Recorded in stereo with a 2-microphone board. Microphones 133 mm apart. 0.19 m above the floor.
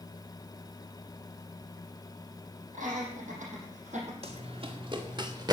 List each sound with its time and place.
2.7 s laughter: 70° right (ahead or behind), 6.5 m; by 4.1 s 60° right (ahead or behind), 6.5 m
4.2 s running footsteps: 50° right (ahead or behind), 2 m; by 5.5 s 30° right (ahead or behind), 2.5 m